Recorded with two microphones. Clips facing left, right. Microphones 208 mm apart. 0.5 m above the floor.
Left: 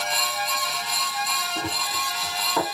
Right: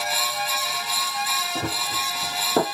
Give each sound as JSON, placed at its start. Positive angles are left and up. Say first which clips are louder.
{"t": 1.6, "sound": "running footsteps", "louder": "right 2 dB", "side_deg": -65, "distance_m": 1.5}